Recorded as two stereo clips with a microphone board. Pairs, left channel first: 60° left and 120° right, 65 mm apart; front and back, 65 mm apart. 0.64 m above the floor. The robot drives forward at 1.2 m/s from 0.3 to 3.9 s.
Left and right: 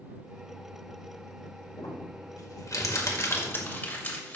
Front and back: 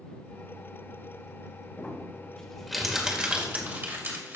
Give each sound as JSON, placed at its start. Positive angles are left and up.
{"t": 1.8, "sound": "crumpling", "azimuth_deg": 60, "distance_m": 2.5}